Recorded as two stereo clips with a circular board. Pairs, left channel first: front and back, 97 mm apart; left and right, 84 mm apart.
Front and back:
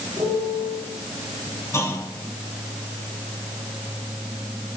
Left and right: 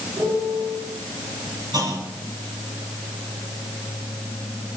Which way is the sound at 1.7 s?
60° right.